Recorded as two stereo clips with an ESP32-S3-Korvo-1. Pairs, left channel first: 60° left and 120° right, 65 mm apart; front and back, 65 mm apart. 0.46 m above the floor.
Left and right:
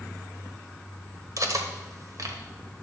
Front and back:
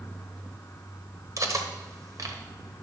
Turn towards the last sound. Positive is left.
turn(degrees=-150)